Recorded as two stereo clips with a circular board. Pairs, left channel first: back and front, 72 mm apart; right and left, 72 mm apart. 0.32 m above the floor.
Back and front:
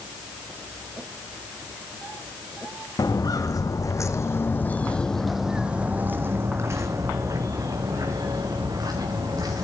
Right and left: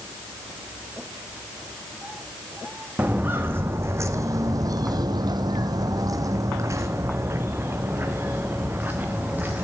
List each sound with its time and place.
3.0 s footsteps: 155° left, 1.6 m; by 9.6 s 20° left, 3 m